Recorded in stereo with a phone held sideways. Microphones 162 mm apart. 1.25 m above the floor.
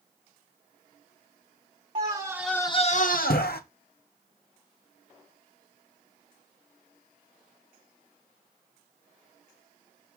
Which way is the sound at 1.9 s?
40° right (ahead or behind).